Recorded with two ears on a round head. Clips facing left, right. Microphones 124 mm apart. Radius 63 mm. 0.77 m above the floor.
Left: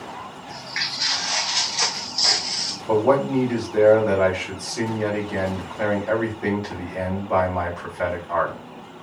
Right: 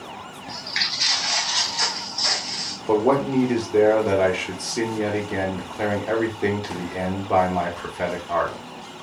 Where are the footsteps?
40° right (ahead or behind), 0.9 m; by 2.8 s 55° left (ahead or behind), 1.1 m.